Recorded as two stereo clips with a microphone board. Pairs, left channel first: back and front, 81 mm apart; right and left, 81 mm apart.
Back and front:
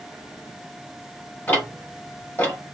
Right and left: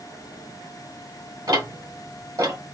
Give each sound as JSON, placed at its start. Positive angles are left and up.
{"t": 1.5, "sound": "ticking", "azimuth_deg": 110, "distance_m": 1.9}